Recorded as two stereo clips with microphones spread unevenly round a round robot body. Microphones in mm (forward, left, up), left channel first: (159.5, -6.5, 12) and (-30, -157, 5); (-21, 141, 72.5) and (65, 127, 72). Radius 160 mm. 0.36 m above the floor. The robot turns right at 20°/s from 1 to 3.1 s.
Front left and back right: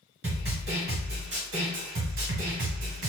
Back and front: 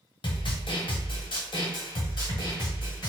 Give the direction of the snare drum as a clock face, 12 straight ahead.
6 o'clock.